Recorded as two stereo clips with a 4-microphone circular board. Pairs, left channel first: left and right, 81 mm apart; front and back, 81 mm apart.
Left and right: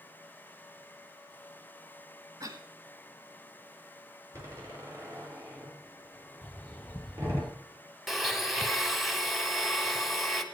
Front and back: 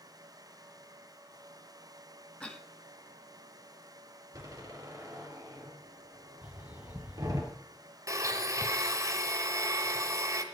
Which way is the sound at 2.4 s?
75° right.